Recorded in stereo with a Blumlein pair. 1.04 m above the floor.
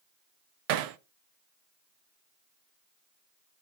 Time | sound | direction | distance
0.7 | hammering | 45° right | 0.6 m